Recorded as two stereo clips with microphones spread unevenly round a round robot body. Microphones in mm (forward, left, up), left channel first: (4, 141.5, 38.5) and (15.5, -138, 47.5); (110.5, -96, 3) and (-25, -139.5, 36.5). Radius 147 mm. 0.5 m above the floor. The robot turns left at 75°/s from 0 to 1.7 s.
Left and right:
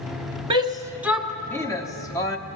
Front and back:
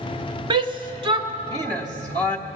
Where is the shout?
125° right, 0.9 m; by 2.4 s 145° left, 0.9 m.